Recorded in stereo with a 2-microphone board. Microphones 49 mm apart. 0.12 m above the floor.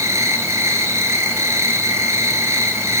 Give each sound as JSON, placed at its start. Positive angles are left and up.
{"t": 0.0, "sound": "an insect", "side_deg": -85, "distance_m": 1.7}